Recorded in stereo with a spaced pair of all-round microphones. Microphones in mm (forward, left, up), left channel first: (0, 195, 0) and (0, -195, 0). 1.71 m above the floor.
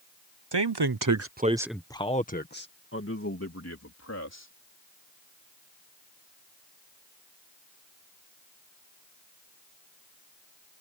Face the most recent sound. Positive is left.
turn(degrees=40)  # may be behind; listen again after turning